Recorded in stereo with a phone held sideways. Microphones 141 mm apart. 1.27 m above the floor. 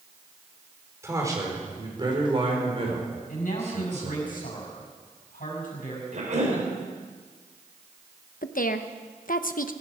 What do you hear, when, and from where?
1.0 s a man speaking: 20° right (ahead or behind), 4.5 m; by 4.3 s 60° right (ahead or behind), 5.5 m
3.3 s a man speaking: 75° left (ahead or behind), 6 m
6.1 s a cough: 55° right (ahead or behind), 4 m
8.4 s a woman speaking: 80° left, 1.0 m